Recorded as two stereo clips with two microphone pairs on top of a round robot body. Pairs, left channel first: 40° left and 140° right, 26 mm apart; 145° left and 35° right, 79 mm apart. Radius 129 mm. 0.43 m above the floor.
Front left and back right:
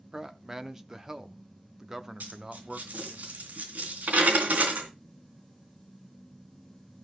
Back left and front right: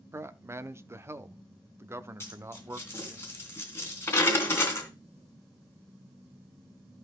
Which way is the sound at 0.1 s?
80° right.